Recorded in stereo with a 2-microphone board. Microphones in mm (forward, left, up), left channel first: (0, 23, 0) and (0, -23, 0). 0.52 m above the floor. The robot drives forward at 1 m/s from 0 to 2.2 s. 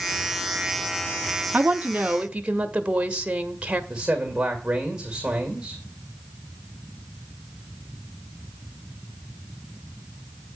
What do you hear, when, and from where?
1.5 s a woman speaking: 35° right (ahead or behind), 0.8 m; by 3.8 s 25° right (ahead or behind), 1.1 m
3.9 s a man speaking: 15° right (ahead or behind), 2 m